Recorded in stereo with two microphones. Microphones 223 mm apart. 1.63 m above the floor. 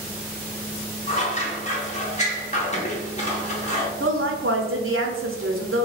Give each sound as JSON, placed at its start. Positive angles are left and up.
{"t": 1.1, "sound": "scissors", "side_deg": 30, "distance_m": 0.9}
{"t": 4.0, "sound": "a woman speaking", "side_deg": -65, "distance_m": 0.8}